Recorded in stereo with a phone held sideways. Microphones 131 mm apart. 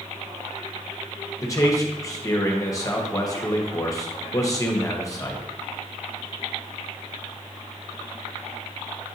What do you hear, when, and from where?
1.4 s a man speaking: 25° left (ahead or behind), 0.9 m